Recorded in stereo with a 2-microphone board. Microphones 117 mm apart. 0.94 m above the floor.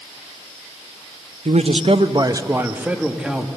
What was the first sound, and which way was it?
A man speaking, 70° right (ahead or behind).